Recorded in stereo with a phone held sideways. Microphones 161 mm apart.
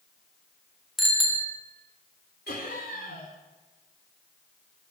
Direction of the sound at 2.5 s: 75° left (ahead or behind).